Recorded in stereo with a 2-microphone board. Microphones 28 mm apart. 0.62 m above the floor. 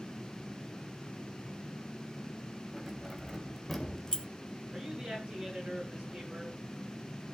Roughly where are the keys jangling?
Centre.